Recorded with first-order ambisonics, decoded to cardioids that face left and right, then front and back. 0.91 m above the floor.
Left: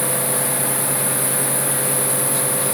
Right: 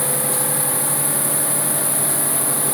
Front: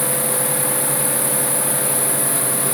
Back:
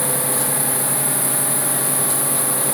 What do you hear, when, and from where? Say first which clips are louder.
0.0 s an insect: left 1 dB, front 1 dB; 10° right, 1.9 m